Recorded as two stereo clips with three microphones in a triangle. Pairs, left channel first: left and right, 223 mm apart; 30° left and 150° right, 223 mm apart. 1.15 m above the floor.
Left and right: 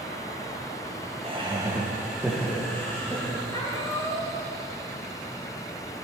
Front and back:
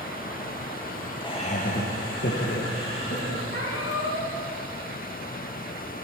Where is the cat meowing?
20° left, 3 m.